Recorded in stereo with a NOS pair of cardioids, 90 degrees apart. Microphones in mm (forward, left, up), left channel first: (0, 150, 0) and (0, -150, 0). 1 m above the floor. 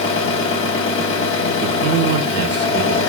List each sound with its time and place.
0.0 s an engine running: 40° left, 1.1 m
1.6 s a man speaking: 55° right, 0.5 m